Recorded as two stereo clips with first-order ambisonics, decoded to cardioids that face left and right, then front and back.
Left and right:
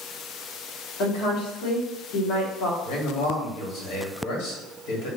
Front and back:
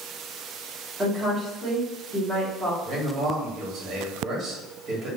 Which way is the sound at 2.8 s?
120° left.